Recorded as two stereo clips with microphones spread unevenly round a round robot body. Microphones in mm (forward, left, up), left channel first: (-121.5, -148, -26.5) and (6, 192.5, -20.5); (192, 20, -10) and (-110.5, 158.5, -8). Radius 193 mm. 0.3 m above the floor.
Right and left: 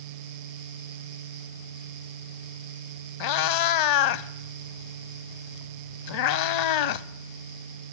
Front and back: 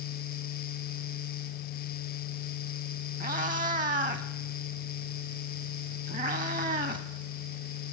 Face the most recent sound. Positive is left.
turn(degrees=-135)